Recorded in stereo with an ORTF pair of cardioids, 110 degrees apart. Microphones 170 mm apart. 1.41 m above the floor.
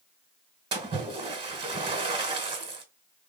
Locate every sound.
0.7 s a splash: 30° right, 1.5 m